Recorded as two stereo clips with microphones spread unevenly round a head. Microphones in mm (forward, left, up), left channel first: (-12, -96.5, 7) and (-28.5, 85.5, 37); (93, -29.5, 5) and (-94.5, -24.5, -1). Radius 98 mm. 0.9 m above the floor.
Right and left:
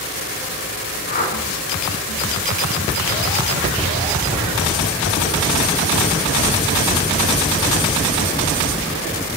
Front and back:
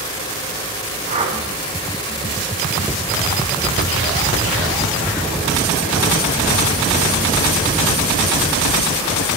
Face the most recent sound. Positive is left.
turn(degrees=-125)